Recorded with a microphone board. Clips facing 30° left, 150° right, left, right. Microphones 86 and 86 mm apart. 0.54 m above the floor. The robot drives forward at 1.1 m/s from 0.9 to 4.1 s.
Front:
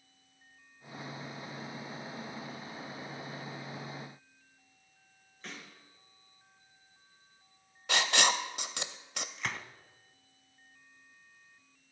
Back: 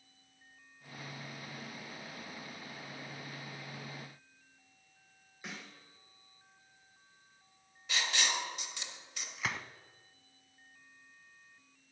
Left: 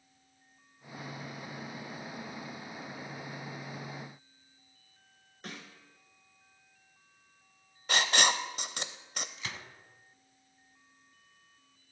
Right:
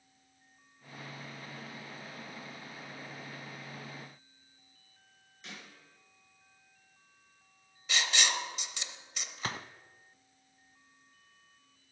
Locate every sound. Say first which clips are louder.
5.4 s a snare drum: even, left 4 dB; 135° left, 3 m
7.9 s writing: front 6 dB, left 4 dB; 50° left, 0.7 m
9.4 s a gunshot: back 1 dB, right 5 dB; 65° right, 0.5 m